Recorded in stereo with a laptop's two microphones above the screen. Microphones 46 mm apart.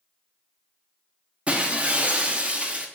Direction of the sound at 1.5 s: 25° right (ahead or behind).